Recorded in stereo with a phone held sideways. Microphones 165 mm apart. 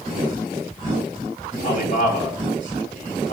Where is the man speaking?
55° left (ahead or behind), 4.5 m.